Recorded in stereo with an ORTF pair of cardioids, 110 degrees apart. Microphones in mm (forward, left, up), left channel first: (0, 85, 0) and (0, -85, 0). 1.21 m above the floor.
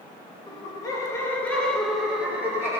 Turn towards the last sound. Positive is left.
turn(degrees=-15)